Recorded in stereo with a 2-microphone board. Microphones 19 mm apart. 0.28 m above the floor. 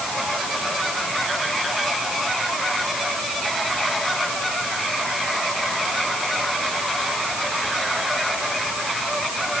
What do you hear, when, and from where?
Only background noise.